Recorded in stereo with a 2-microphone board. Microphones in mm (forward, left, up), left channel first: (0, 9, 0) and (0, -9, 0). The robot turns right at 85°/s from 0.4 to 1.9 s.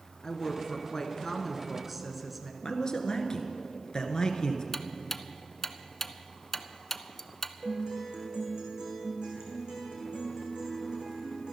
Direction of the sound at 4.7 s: 20° left (ahead or behind).